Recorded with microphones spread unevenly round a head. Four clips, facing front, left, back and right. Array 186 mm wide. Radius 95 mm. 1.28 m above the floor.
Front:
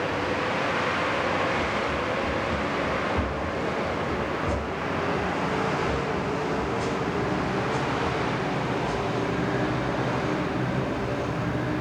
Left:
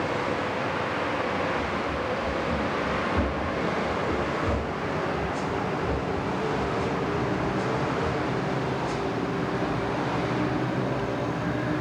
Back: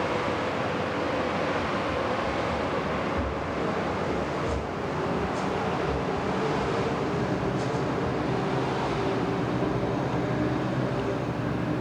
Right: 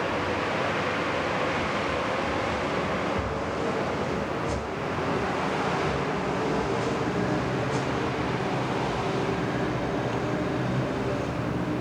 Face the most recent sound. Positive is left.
turn(degrees=75)